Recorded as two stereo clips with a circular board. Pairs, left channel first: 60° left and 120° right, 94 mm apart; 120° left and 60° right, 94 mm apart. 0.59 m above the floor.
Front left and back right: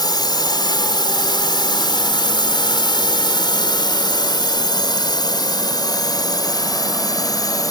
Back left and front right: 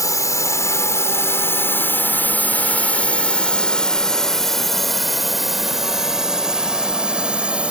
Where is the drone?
80° left; by 7.7 s 20° left.